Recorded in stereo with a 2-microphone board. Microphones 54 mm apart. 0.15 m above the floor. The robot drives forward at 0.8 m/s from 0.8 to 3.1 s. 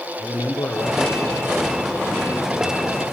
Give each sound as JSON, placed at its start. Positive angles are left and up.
{"t": 0.2, "sound": "a man speaking", "side_deg": 60, "distance_m": 3.5}